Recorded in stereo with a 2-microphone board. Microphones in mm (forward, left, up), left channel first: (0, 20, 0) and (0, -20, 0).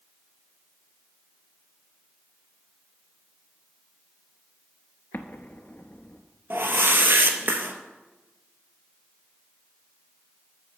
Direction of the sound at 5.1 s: 65° left (ahead or behind).